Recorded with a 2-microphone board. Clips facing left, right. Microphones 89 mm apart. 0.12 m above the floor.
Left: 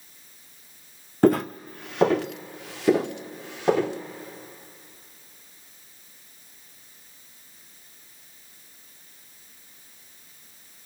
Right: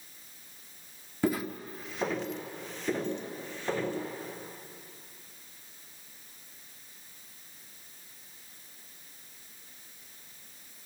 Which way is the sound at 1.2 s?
60° left (ahead or behind).